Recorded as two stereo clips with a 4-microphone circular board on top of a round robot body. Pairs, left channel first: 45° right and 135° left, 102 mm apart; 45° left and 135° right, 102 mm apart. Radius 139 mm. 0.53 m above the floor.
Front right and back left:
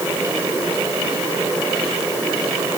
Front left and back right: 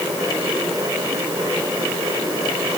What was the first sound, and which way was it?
Only background noise.